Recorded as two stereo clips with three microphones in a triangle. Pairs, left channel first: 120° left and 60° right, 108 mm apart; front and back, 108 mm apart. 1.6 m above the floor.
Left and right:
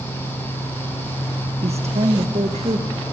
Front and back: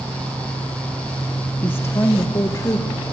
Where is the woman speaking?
75° right, 1.2 m; by 2.9 s 60° right, 2.5 m.